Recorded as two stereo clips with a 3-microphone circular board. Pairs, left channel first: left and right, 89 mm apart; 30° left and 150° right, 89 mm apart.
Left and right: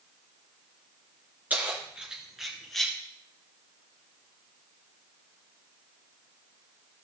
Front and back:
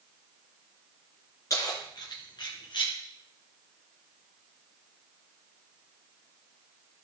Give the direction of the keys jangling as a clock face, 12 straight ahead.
1 o'clock.